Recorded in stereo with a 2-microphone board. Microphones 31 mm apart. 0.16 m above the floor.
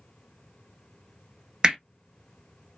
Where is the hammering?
25° right (ahead or behind), 0.7 m.